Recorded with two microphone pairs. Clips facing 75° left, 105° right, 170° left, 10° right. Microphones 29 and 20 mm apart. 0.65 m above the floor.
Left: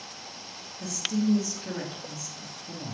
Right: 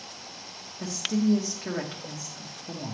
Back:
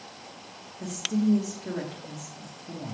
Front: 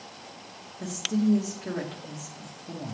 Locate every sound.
0.8 s a woman speaking: 65° right, 1.0 m